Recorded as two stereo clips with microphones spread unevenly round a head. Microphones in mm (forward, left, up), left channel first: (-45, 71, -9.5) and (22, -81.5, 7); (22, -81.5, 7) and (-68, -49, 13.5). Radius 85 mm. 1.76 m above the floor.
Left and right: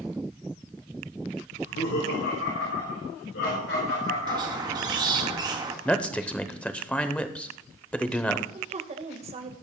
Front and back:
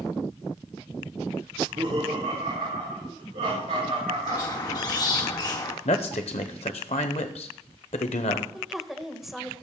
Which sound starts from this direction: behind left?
Laughter, at 1.5 s.